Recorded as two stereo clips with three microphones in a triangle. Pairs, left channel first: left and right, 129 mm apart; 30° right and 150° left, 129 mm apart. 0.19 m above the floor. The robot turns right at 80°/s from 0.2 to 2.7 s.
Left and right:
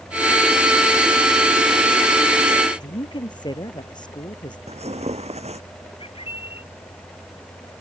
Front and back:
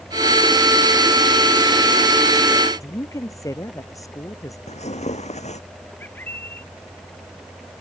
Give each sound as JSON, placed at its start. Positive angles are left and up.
{"t": 2.8, "sound": "a woman speaking", "azimuth_deg": 35}
{"t": 4.7, "sound": "tearing paper", "azimuth_deg": -60}
{"t": 6.0, "sound": "a bird", "azimuth_deg": 45}